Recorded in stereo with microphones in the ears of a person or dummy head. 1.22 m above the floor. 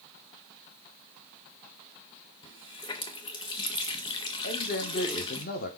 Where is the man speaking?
40° left (ahead or behind), 1.2 m.